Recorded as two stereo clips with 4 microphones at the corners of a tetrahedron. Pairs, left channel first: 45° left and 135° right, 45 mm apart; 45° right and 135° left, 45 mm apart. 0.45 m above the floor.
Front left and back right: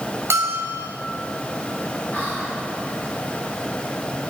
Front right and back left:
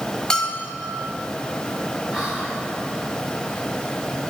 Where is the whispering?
60° left, 1.1 m.